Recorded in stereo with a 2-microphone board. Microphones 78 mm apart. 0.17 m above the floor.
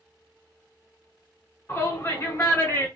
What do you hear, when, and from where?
1.7 s a shout: 30° left (ahead or behind), 1.2 m